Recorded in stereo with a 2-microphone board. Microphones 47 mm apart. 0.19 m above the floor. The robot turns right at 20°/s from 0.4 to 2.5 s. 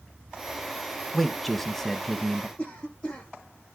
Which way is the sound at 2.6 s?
25° left (ahead or behind).